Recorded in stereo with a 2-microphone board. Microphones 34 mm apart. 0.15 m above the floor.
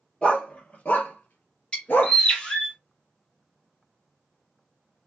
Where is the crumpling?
I don't hear crumpling.